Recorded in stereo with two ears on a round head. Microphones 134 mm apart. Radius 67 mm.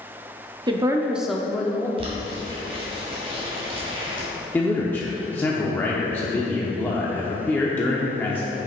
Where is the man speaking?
10° left (ahead or behind), 0.8 m.